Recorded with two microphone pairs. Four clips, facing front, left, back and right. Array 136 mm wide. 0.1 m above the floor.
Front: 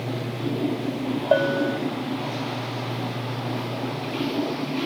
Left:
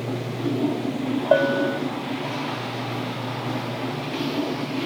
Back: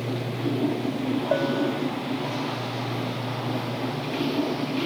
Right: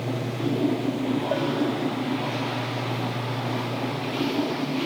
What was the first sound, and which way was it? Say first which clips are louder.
A bell: left 5 dB, front 5 dB; 55° left.